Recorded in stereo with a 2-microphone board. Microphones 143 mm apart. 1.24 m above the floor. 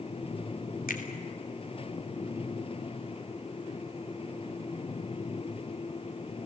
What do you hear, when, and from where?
0.9 s a finger snap: 85° left, 2.5 m